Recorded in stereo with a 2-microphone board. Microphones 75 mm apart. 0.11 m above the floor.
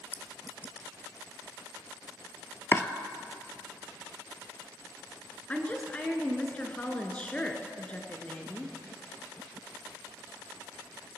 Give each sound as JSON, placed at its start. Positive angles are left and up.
{"t": 0.1, "sound": "a clink", "side_deg": 20, "distance_m": 0.7}
{"t": 2.7, "sound": "chopping", "side_deg": 30, "distance_m": 0.7}
{"t": 5.5, "sound": "a woman speaking", "side_deg": 20, "distance_m": 1.1}